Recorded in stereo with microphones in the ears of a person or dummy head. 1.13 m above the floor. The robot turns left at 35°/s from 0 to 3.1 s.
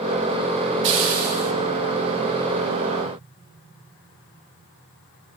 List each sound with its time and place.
0.8 s a hiss: 60° right (ahead or behind), 3 m; by 1.5 s 85° right, 3 m